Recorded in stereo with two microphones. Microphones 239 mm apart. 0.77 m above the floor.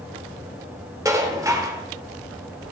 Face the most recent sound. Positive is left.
turn(degrees=-15)  # may be behind; listen again after turning